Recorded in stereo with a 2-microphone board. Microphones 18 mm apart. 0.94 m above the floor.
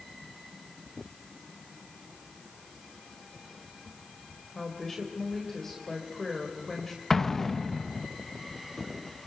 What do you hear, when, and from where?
4.5 s a woman speaking: 15° left (ahead or behind), 3.5 m
7.1 s an explosion: 20° left (ahead or behind), 0.8 m